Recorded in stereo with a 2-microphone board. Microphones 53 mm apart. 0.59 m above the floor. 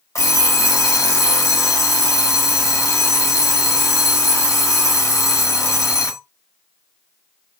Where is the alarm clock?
70° left (ahead or behind), 1.2 m.